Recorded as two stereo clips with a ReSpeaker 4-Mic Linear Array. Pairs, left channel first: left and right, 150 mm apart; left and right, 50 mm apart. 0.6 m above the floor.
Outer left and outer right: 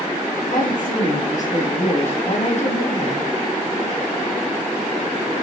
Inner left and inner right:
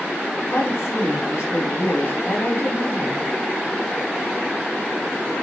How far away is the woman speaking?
About 4.5 m.